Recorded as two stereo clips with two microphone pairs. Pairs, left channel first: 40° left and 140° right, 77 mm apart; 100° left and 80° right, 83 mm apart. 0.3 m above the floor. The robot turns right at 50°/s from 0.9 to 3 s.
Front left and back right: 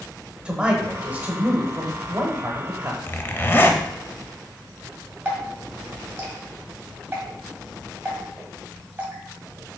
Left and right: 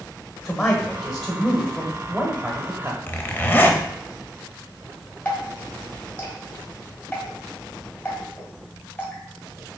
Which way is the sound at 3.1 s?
60° left.